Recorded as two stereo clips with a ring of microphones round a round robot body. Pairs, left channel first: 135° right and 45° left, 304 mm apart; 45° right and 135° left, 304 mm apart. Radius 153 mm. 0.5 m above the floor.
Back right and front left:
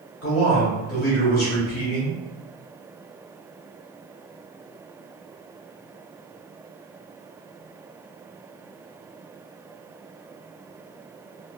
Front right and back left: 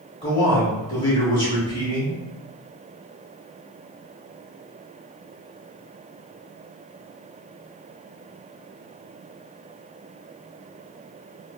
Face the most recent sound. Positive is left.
turn(degrees=-115)